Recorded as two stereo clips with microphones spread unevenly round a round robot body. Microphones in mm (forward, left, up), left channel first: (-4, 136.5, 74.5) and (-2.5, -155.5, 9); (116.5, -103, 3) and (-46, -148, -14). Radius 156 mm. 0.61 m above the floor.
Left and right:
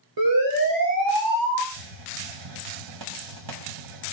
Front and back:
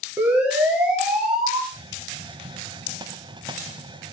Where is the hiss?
100° right, 2.0 m.